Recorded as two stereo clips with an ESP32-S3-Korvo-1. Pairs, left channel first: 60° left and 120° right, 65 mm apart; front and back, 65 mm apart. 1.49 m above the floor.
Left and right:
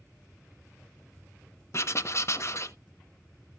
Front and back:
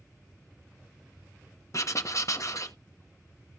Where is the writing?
25° left, 1.2 m.